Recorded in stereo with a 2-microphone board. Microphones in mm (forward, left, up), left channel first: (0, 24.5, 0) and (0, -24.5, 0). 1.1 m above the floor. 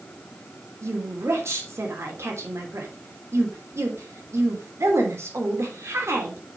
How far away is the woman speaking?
About 3 m.